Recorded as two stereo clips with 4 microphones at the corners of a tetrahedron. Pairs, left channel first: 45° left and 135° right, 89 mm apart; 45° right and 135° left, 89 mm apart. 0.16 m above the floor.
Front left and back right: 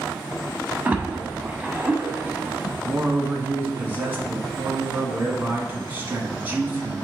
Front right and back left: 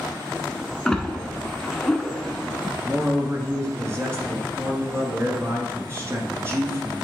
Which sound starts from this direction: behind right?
A splash, at 0.8 s.